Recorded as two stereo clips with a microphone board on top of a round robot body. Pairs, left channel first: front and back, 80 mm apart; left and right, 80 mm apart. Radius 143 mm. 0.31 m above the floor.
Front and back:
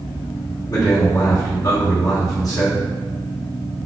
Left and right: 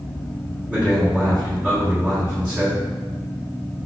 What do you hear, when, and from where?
0.7 s a man speaking: 15° right, 1.5 m